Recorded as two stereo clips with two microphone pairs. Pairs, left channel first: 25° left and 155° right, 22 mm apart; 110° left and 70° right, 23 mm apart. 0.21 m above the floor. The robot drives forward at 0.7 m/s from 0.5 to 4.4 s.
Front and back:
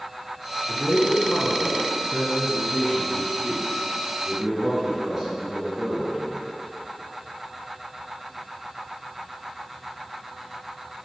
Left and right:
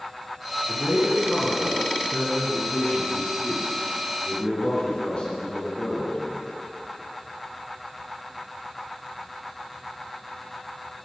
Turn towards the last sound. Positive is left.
turn(degrees=135)